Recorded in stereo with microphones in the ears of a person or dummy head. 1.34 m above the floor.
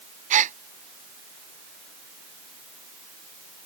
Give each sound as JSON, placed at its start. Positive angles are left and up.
{"t": 0.3, "sound": "a gasp", "side_deg": -35}